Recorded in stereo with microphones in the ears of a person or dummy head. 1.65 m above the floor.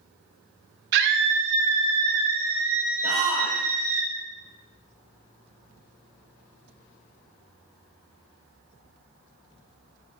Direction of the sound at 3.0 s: 25° left (ahead or behind).